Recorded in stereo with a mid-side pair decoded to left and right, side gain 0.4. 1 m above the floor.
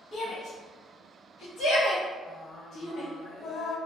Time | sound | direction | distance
0.1 | a shout | 65° left | 1.7 m
2.3 | singing | 60° left | 0.9 m